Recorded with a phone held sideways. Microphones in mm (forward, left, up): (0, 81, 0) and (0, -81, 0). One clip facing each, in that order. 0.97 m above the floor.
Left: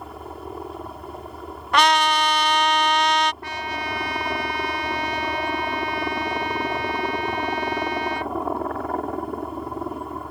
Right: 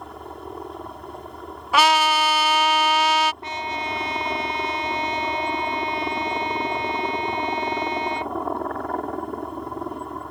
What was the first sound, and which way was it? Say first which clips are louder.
A helicopter: left 1 dB; centre (ahead or behind).